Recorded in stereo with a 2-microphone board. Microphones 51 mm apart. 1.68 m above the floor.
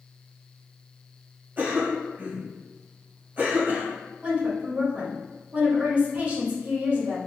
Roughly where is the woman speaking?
Right.